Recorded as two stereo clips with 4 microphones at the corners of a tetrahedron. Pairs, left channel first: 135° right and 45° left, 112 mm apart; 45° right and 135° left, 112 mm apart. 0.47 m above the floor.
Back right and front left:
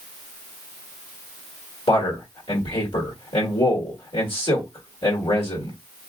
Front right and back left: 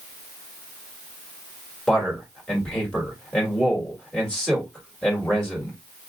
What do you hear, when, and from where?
1.9 s a man speaking: 125° right, 1.7 m